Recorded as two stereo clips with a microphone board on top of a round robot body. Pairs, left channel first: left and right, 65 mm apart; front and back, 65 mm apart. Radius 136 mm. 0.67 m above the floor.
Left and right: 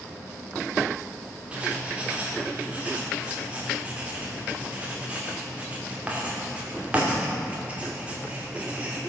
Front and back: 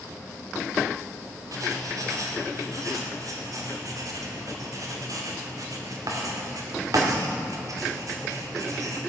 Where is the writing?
160° right, 2.5 m.